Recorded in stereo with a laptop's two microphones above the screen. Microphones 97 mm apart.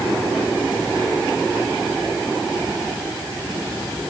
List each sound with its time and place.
Only background noise.